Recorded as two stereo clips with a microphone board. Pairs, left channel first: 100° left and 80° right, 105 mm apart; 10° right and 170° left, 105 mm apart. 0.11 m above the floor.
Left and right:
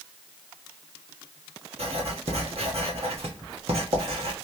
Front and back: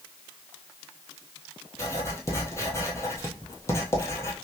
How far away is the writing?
About 1.2 m.